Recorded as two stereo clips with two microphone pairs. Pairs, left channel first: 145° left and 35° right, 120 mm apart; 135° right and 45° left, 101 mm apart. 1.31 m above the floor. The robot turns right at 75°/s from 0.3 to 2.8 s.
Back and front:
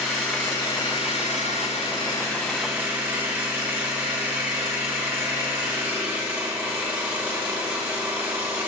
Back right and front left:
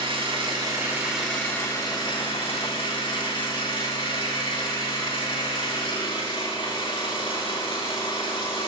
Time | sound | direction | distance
0.0 | an engine running | 65° left | 3 m